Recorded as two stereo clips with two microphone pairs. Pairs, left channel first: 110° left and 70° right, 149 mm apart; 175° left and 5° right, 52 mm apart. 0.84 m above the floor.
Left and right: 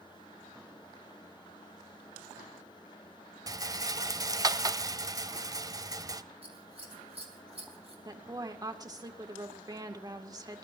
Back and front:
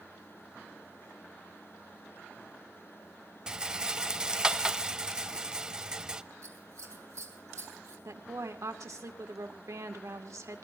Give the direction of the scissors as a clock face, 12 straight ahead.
1 o'clock.